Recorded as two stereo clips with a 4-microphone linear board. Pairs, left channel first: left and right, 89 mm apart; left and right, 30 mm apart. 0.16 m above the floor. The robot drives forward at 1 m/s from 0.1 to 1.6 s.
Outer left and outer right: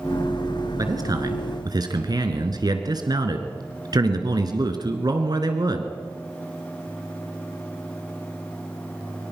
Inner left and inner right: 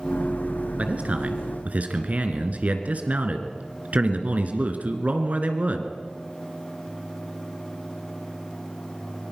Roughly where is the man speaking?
Right.